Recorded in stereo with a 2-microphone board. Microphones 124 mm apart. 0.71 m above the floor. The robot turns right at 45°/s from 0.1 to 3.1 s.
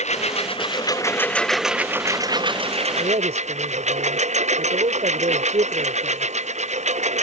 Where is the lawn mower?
115° left; by 7.2 s 110° right.